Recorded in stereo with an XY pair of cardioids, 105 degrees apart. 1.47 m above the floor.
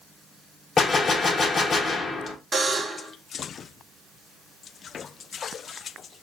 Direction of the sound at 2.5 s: 35° right.